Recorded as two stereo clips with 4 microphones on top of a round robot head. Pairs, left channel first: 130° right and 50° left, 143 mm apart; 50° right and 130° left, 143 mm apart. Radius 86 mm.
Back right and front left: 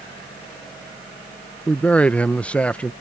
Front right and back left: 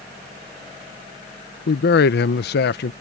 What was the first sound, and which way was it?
A man speaking, 45° right.